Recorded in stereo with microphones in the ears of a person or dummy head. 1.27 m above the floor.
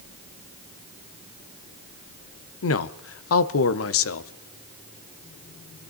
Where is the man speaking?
65° left (ahead or behind), 0.9 m.